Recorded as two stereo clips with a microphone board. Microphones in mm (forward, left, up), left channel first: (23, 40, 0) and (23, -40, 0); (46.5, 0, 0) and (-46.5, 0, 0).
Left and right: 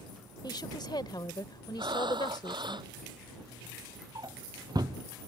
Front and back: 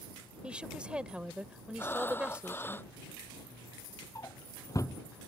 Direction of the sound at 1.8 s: 70° right.